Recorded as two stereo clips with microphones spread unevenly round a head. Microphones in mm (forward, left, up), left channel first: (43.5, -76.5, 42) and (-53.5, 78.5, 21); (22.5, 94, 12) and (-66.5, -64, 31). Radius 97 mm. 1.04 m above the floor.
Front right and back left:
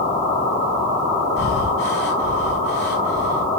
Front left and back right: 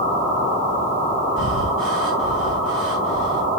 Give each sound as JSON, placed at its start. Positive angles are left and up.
{"t": 1.4, "sound": "breathing", "azimuth_deg": -90, "distance_m": 3.5}